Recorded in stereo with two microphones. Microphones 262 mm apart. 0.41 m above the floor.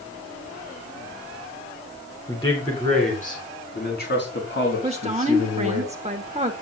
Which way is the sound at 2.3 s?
20° left (ahead or behind).